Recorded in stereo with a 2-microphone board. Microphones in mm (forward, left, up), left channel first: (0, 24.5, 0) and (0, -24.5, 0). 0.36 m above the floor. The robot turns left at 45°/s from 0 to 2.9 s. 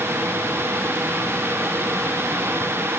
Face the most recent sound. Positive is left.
No sound to turn to.